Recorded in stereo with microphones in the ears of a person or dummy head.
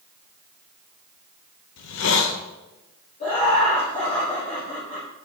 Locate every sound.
1.8 s a hiss: 65° left (ahead or behind), 0.8 m
3.2 s laughter: 35° left (ahead or behind), 2.5 m